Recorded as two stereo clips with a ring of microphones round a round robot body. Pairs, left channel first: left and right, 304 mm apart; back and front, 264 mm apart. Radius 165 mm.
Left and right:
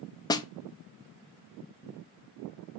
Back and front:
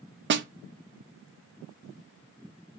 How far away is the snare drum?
About 0.5 m.